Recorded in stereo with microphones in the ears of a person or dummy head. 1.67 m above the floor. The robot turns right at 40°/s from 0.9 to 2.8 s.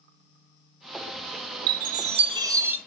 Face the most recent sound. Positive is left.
turn(degrees=-10)